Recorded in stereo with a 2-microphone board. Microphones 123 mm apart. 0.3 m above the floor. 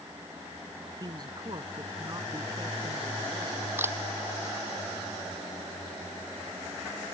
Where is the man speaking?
35° right (ahead or behind); by 3.7 s 30° right (ahead or behind).